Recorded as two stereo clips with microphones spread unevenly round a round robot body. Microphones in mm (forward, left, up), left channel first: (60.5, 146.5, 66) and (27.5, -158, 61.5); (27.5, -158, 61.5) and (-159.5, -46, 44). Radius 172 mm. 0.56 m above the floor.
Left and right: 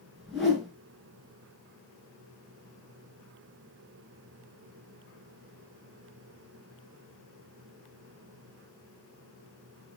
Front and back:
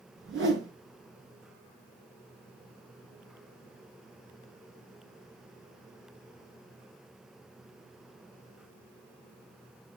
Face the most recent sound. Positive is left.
turn(degrees=175)